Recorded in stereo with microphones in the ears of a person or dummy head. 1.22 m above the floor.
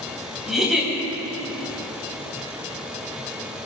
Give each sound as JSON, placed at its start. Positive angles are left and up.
{"t": 0.5, "sound": "a giggle", "side_deg": 0, "distance_m": 4.5}